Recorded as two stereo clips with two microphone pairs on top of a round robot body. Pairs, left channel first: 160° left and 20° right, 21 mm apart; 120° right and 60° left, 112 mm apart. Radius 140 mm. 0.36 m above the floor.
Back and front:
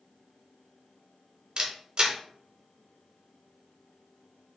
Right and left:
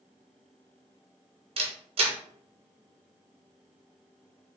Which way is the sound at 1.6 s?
25° left.